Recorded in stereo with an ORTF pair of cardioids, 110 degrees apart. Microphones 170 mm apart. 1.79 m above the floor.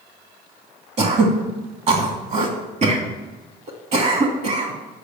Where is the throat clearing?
45° right, 2.5 m.